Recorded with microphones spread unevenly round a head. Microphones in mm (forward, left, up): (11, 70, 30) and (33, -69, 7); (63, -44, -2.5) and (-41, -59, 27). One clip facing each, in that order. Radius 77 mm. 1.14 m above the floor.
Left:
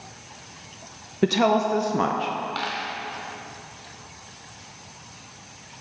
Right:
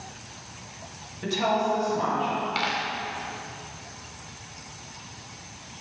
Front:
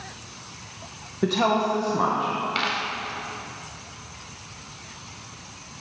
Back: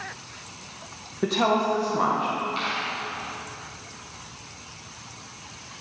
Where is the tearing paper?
No tearing paper in this recording.